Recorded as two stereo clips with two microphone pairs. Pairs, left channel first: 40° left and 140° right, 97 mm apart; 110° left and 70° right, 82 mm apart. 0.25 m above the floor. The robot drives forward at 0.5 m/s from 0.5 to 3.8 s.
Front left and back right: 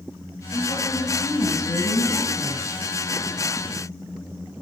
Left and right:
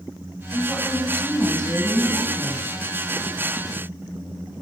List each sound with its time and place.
0.5 s a woman speaking: 20° left, 1.4 m; by 2.7 s 95° left, 1.0 m